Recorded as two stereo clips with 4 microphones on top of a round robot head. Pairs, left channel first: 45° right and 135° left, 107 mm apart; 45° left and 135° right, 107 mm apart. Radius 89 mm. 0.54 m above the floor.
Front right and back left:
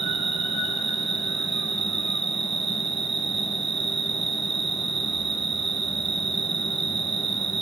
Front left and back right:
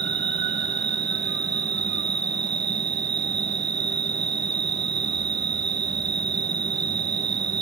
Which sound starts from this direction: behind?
An insect, at 0.0 s.